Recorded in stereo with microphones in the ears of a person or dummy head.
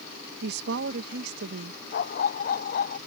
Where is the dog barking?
50° left (ahead or behind).